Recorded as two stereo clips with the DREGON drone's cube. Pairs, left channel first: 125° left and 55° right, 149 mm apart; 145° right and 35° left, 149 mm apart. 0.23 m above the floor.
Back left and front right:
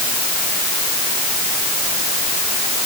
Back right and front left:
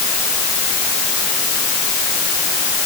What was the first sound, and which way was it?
Only background noise.